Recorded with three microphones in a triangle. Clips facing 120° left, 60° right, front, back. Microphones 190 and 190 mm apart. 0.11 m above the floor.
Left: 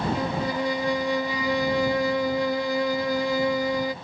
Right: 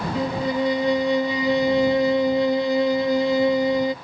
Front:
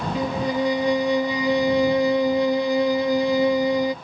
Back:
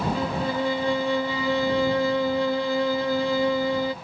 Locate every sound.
0.1 s a violin: 40° right